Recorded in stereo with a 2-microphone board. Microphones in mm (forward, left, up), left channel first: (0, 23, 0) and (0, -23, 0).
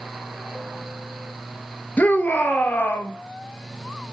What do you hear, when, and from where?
2.0 s a shout: 40° left (ahead or behind), 1.4 m; by 3.1 s 45° left (ahead or behind), 1.5 m